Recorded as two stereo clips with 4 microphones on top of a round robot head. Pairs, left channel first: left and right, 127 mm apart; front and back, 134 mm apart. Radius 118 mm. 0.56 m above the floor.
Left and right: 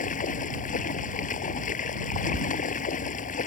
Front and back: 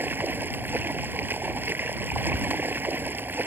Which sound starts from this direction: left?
Running water, at 0.0 s.